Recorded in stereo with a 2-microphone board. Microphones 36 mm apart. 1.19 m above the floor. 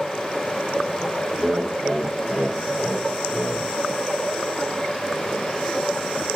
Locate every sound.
1.4 s laughter: 10° right (ahead or behind), 1.6 m; by 3.7 s 5° right (ahead or behind), 4 m